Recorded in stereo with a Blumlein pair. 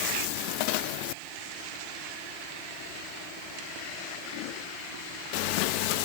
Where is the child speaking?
No child speaking in this recording.